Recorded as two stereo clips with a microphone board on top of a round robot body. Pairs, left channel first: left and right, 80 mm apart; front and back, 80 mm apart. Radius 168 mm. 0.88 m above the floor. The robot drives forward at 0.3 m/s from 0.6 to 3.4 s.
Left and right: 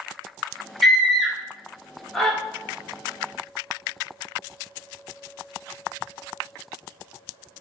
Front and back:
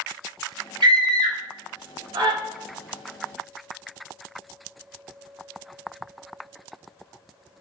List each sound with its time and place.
0.8 s a scream: straight behind, 3.5 m